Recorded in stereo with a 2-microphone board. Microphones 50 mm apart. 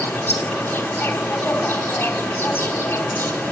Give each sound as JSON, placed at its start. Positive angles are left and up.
{"t": 0.0, "sound": "an insect", "side_deg": 40, "distance_m": 4.5}